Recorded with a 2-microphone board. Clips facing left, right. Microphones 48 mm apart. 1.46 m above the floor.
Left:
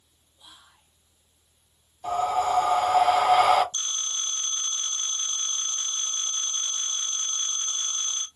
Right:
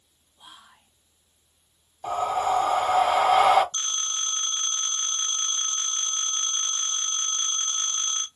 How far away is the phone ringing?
About 1.6 m.